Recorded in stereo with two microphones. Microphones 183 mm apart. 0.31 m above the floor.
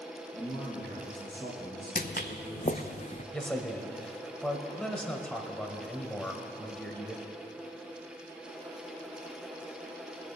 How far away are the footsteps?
About 0.7 m.